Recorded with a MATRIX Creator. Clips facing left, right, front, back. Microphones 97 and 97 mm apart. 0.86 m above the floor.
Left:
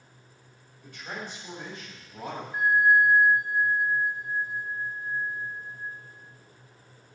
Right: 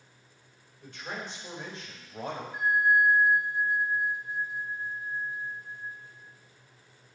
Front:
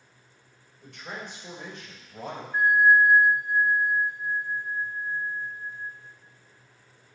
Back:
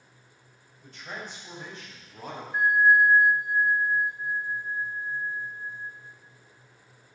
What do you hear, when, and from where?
0.8 s a man speaking: 25° right, 4 m; by 2.4 s 35° right, 4.5 m
2.5 s a bell: 55° left, 1.5 m